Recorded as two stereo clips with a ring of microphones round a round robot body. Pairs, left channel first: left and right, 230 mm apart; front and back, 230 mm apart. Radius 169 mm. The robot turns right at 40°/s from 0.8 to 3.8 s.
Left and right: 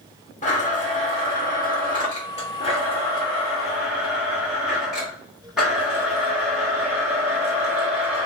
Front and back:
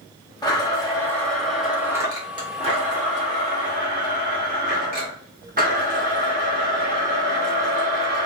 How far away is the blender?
About 1.2 m.